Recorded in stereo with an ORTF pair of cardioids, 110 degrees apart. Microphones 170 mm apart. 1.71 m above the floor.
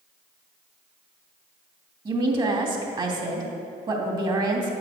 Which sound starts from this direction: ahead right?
A woman speaking, at 2.0 s.